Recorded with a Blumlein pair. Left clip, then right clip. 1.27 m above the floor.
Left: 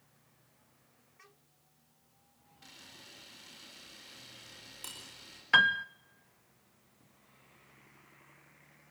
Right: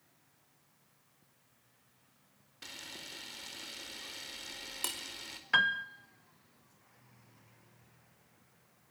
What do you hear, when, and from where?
2.6 s a camera shutter: 60° right, 4.5 m
5.5 s a piano: 15° left, 0.7 m